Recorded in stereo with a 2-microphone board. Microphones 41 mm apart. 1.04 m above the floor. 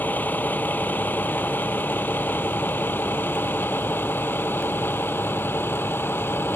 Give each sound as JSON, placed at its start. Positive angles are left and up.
{"t": 0.0, "sound": "a vehicle", "side_deg": 45}